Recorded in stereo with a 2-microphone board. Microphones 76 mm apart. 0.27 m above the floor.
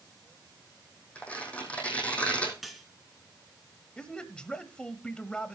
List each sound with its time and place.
1.1 s tearing paper: 15° left (ahead or behind), 3 m
2.6 s cutlery clinking: centre (ahead or behind), 1.7 m
4.0 s a man speaking: 10° left (ahead or behind), 1.1 m